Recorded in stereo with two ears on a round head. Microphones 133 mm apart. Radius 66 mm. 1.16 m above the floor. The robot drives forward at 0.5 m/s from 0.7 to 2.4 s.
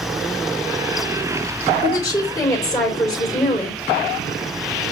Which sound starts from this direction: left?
A woman speaking, at 1.8 s.